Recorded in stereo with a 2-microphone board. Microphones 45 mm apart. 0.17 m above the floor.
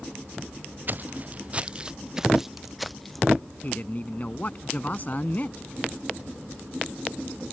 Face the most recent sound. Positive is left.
turn(degrees=40)  # may be behind; listen again after turning